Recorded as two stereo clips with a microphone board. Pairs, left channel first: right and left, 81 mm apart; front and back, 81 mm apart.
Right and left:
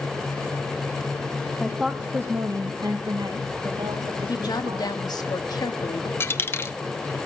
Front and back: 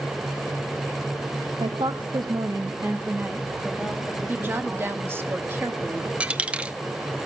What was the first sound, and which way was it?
A woman speaking, 170° right.